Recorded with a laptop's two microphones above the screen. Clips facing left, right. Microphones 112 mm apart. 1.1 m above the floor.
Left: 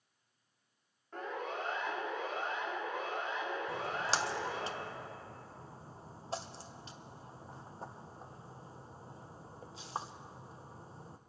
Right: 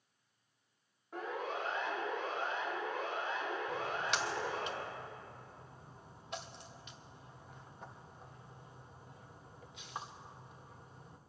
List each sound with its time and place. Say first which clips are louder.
1.1 s a siren: even; 10° right (ahead or behind), 2.5 m; by 4.7 s 20° left (ahead or behind), 7.5 m
3.7 s a splash: left 1 dB; 30° left (ahead or behind), 0.6 m